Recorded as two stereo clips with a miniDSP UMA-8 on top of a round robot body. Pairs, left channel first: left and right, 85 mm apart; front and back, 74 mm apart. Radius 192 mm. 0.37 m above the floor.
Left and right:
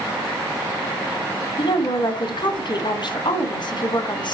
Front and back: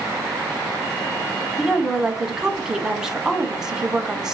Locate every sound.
1.6 s a woman speaking: 100° left, 2.5 m